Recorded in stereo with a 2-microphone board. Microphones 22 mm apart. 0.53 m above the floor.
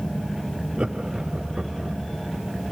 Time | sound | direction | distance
0.8 | laughter | 40° right (ahead or behind) | 1.0 m